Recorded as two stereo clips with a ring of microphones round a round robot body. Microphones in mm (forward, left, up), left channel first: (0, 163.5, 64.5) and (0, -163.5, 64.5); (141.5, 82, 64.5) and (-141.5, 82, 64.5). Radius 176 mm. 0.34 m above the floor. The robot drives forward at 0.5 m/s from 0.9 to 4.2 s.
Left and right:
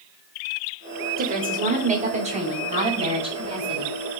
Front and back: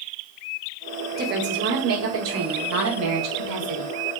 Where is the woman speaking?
140° right, 1.4 m; by 4.0 s 165° right, 2.5 m.